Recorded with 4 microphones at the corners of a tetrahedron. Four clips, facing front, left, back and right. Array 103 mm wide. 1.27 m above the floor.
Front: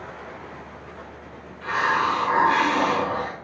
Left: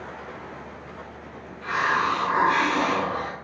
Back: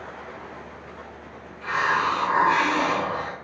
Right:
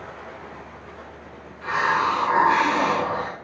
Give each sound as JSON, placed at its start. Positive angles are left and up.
{"t": 1.6, "sound": "a hiss", "azimuth_deg": -70, "distance_m": 1.2}